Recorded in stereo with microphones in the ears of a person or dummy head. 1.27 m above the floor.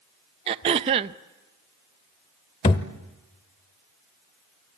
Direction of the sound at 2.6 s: 30° left (ahead or behind).